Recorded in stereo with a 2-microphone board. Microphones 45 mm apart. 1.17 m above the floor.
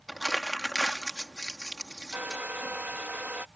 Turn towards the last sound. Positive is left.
turn(degrees=-35)  # may be behind; listen again after turning